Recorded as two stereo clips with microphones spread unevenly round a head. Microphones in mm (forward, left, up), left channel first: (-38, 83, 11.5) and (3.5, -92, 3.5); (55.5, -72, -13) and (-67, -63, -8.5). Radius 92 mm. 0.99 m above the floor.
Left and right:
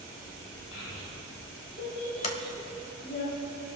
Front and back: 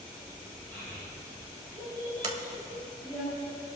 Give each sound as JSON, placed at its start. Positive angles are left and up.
{"t": 0.7, "sound": "a child speaking", "azimuth_deg": 80, "distance_m": 4.5}
{"t": 2.2, "sound": "a sliding door", "azimuth_deg": 150, "distance_m": 1.2}